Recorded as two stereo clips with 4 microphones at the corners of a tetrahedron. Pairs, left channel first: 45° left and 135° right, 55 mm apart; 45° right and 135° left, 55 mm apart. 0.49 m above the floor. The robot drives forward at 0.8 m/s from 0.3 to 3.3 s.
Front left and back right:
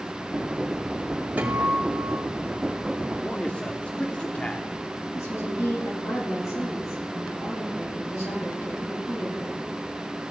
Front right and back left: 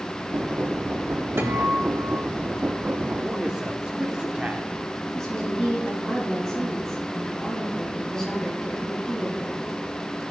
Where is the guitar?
175° left, 2.5 m.